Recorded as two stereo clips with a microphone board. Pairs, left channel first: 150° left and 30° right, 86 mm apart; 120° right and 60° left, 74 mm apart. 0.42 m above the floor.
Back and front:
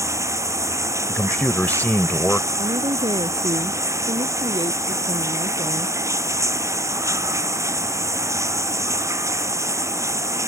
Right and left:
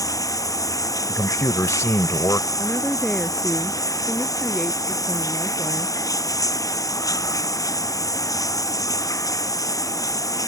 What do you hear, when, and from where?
0.0 s running water: 85° right
1.1 s a man speaking: 145° right
2.6 s a woman speaking: 35° right